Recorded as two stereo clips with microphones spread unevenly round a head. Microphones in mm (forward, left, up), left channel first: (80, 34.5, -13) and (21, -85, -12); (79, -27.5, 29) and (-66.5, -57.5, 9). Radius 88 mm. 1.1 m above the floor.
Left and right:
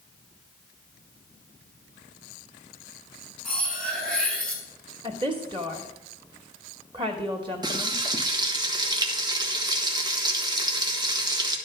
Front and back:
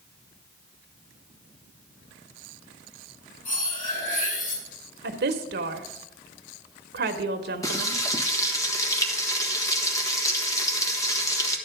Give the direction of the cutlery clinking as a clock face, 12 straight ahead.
1 o'clock.